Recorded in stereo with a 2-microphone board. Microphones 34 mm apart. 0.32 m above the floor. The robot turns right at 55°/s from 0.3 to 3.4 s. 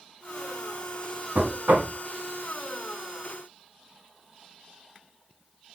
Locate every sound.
1.4 s knocking: 125° right, 2 m; by 1.9 s 90° right, 2 m